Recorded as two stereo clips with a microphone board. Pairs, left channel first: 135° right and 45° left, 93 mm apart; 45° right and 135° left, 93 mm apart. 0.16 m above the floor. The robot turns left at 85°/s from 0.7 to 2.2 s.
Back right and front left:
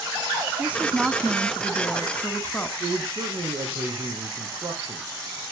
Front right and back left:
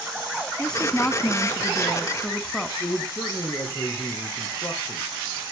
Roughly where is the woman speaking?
Ahead.